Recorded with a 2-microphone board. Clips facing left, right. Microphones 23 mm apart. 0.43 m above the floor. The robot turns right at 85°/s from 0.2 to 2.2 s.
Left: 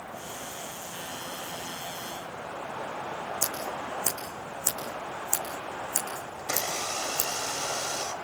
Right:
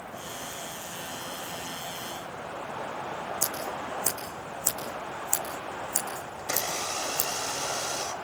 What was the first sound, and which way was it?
Scissors, 5° left (ahead or behind).